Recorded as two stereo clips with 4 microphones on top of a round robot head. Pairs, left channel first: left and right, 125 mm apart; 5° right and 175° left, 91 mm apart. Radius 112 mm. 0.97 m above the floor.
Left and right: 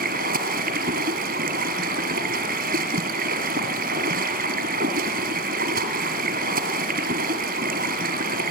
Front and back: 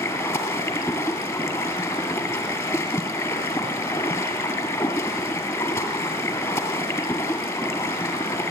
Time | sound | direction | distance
0.0 | running water | 75° right | 2.5 m